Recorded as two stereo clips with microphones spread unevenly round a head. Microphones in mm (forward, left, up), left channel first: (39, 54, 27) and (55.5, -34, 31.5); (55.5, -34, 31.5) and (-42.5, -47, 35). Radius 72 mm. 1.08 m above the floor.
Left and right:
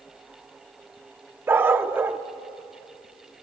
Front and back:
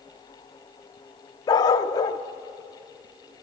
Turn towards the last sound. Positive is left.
turn(degrees=-25)